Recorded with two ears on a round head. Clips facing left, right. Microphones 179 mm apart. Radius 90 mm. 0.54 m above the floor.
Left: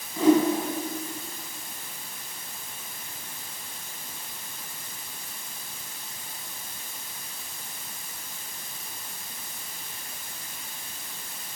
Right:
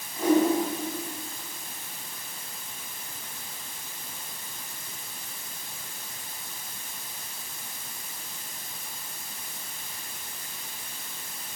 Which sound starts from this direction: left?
A whoosh, at 0.2 s.